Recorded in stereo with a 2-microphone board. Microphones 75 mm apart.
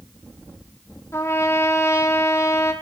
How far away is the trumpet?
About 1.9 m.